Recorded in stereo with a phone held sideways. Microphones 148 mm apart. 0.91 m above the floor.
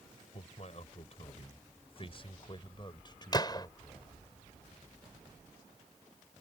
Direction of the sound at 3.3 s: 30° left (ahead or behind).